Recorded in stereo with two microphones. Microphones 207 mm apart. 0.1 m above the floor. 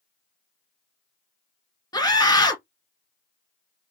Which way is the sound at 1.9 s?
20° left (ahead or behind).